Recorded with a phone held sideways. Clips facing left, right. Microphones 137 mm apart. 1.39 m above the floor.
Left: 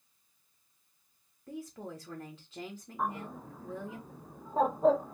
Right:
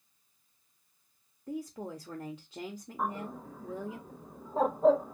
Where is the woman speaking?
15° right (ahead or behind), 0.5 m.